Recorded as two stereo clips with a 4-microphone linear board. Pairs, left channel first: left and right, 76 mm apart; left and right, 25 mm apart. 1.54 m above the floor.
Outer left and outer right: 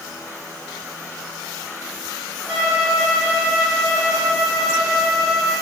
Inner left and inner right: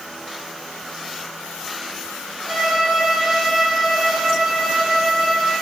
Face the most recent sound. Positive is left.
turn(degrees=5)  # may be behind; listen again after turning